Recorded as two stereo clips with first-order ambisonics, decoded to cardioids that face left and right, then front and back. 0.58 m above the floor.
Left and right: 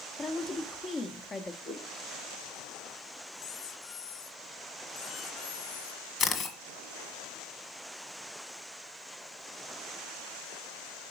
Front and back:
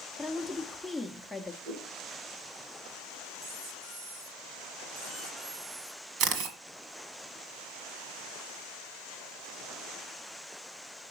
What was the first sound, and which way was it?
A woman speaking, 95° left.